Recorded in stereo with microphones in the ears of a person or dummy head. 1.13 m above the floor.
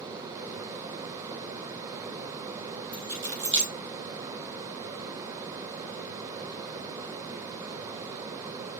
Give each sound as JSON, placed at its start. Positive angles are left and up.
{"t": 2.9, "sound": "keys jangling", "side_deg": -70, "distance_m": 4.0}